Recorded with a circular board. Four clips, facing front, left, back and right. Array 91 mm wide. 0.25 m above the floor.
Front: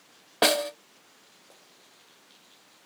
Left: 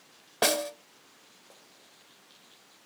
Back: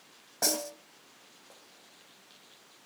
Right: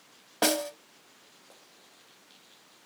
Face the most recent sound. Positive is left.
turn(degrees=5)